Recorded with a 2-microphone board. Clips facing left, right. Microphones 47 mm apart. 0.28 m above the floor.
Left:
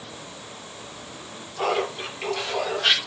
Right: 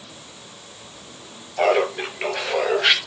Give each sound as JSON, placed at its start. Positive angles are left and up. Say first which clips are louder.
{"t": 1.6, "sound": "laughter", "louder": "right 6 dB", "side_deg": -65, "distance_m": 4.5}